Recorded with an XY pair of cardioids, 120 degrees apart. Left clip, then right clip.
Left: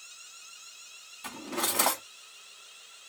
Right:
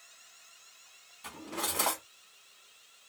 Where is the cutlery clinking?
35° left, 1.1 m.